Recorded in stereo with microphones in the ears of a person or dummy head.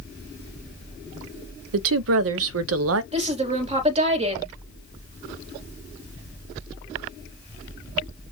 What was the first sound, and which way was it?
A woman speaking, 70° right (ahead or behind).